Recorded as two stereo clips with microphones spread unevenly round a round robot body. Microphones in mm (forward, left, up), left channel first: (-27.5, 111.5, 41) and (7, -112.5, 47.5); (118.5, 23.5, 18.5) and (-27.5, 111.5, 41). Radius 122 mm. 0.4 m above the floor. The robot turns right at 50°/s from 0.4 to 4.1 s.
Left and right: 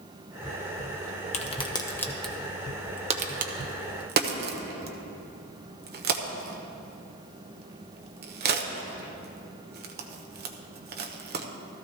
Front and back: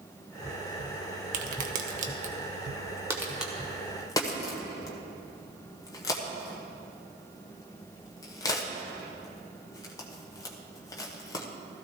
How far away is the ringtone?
I don't hear a ringtone.